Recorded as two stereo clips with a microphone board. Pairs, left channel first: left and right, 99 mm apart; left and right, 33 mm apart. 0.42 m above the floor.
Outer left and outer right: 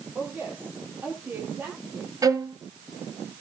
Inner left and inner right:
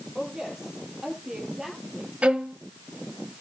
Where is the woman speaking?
15° right (ahead or behind), 10 m; by 2.1 s 20° right (ahead or behind), 9 m.